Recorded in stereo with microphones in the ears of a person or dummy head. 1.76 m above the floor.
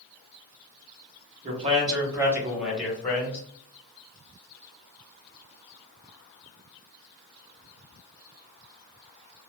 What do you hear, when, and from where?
1.4 s a man speaking: 35° right (ahead or behind), 1.0 m; by 3.4 s 15° left (ahead or behind), 1.4 m